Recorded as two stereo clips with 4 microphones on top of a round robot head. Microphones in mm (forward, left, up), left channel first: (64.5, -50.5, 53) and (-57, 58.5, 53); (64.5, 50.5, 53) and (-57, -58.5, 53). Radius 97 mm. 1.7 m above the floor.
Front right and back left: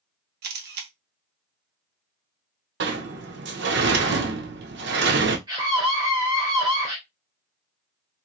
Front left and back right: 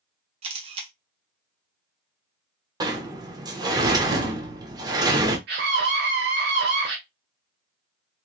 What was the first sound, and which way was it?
A camera shutter, 165° left.